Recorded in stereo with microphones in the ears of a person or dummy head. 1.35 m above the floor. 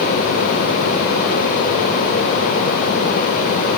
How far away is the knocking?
No knocking in this recording.